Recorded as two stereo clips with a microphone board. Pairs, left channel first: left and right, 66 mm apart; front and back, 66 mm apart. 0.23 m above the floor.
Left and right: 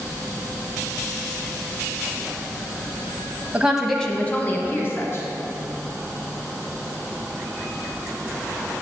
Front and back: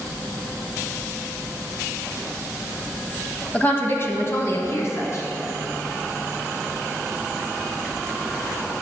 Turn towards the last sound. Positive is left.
turn(degrees=45)